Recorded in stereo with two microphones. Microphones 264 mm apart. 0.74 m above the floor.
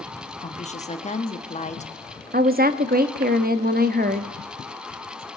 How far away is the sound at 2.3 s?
About 0.9 m.